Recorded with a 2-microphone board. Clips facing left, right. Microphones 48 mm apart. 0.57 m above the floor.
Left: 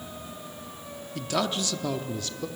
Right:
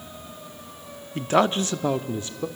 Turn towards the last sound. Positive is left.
turn(degrees=-20)  # may be behind; listen again after turning